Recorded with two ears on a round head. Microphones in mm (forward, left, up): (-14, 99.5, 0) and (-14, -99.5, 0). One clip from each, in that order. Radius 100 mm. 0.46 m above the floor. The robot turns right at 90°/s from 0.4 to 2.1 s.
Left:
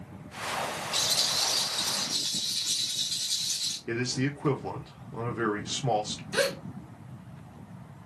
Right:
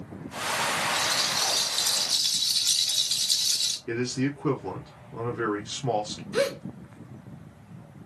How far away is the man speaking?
About 0.9 m.